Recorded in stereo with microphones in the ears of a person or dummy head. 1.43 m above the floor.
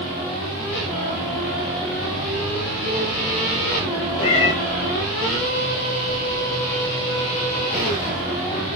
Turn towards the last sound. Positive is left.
turn(degrees=30)  # may be behind; listen again after turning